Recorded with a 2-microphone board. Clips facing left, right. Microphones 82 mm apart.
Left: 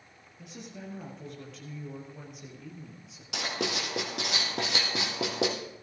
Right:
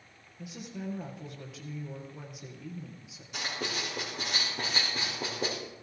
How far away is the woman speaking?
About 4.5 m.